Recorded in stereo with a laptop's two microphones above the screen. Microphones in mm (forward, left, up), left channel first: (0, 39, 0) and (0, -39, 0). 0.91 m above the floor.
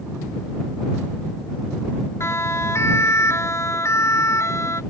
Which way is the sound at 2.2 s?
40° left (ahead or behind).